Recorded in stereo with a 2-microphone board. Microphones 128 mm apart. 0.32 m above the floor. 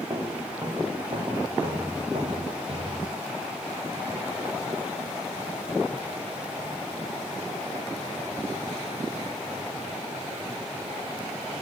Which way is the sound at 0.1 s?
30° right (ahead or behind).